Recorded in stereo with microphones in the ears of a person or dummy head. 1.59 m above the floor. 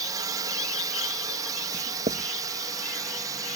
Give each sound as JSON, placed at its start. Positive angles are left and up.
{"t": 0.0, "sound": "a drone", "side_deg": -20}
{"t": 1.7, "sound": "writing", "side_deg": -40}